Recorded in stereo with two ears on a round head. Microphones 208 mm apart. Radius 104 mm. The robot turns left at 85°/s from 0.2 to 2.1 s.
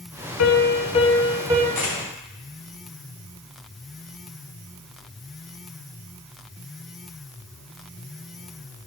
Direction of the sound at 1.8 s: 15° left (ahead or behind).